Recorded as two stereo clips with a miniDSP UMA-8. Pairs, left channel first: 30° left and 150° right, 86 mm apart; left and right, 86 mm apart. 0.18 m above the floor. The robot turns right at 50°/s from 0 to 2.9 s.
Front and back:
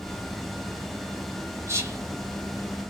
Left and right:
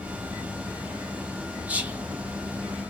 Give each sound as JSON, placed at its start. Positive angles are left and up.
{"t": 1.7, "sound": "whispering", "azimuth_deg": -150, "distance_m": 1.5}